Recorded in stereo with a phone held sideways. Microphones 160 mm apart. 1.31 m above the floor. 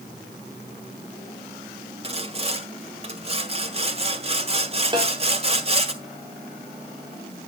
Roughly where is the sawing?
Right.